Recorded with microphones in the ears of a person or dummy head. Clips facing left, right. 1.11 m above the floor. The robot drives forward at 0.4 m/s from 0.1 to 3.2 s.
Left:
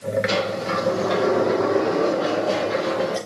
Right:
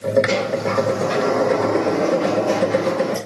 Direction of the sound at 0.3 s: 40° right (ahead or behind).